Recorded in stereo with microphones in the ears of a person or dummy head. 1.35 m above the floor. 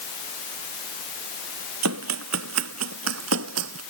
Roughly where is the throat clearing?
No throat clearing in this recording.